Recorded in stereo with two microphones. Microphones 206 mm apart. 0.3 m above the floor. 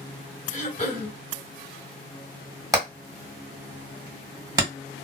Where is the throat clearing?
40° left (ahead or behind), 1.9 m.